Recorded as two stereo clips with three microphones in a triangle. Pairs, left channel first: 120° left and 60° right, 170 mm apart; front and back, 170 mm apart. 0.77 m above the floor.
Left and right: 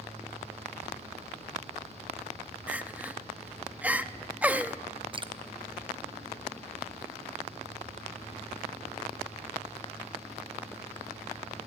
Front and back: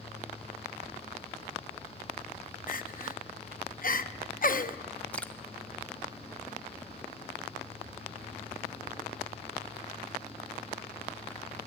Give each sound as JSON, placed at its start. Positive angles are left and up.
{"t": 2.7, "sound": "crying", "azimuth_deg": 20, "distance_m": 0.6}
{"t": 5.1, "sound": "dripping", "azimuth_deg": -75, "distance_m": 0.8}